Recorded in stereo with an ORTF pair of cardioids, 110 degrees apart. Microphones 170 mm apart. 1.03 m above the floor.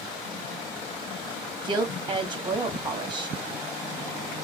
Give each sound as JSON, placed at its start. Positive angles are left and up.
{"t": 1.6, "sound": "a woman speaking", "azimuth_deg": -25, "distance_m": 1.5}